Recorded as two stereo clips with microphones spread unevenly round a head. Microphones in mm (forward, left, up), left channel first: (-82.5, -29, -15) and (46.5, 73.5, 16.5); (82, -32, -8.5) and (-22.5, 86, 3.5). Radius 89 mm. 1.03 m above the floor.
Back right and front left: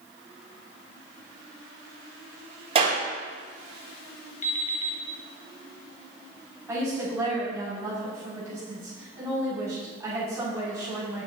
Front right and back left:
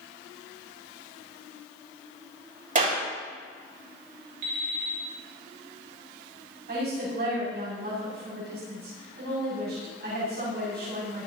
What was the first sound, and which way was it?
A clap, 95° left.